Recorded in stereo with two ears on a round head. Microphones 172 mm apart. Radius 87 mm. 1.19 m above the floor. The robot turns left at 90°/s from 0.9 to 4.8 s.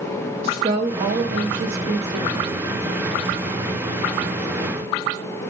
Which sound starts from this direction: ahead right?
A woman speaking, at 0.4 s.